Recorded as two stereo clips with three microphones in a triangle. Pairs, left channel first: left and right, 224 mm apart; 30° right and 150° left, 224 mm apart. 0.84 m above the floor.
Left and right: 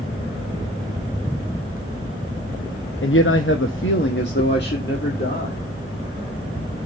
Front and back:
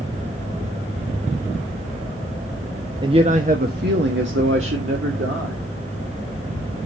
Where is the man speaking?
85° left, 0.7 m; by 5.6 s 135° left, 2.0 m.